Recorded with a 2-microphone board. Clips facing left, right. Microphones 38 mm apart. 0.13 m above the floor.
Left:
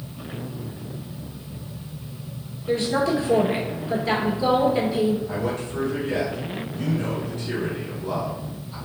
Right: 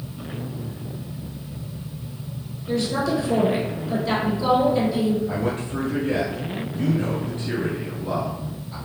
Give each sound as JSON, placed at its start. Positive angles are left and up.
{"t": 2.7, "sound": "a woman speaking", "side_deg": 30, "distance_m": 1.9}
{"t": 5.3, "sound": "a man speaking", "side_deg": -30, "distance_m": 1.6}